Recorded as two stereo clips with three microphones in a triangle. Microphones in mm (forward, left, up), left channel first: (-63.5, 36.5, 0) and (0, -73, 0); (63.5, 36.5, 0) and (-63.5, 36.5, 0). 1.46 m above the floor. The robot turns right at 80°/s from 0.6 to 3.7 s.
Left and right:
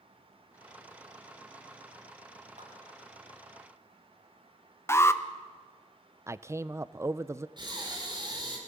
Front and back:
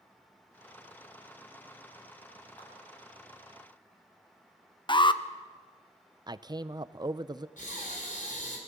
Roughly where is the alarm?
Ahead left.